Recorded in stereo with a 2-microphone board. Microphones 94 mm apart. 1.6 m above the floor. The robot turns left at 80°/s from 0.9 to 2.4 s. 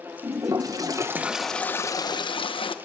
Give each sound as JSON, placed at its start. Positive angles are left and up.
{"t": 0.2, "sound": "a toilet flushing", "azimuth_deg": -140, "distance_m": 1.1}